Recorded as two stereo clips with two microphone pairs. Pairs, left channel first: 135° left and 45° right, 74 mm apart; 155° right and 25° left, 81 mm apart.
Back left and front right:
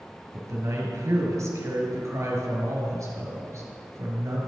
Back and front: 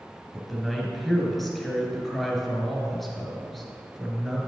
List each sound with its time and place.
0.3 s a man speaking: 70° right, 1.7 m